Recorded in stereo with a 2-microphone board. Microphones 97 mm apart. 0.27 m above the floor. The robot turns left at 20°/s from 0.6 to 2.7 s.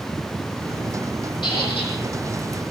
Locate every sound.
1.4 s a squeak: 55° left (ahead or behind), 9 m; by 1.9 s 65° left (ahead or behind), 9 m